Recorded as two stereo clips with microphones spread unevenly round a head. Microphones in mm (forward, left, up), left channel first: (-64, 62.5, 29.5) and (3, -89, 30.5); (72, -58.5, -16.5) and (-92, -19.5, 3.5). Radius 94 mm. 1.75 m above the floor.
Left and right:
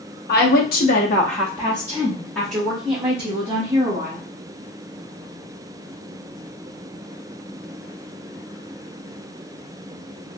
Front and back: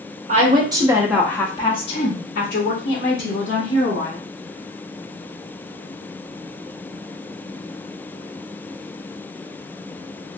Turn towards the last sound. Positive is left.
turn(degrees=10)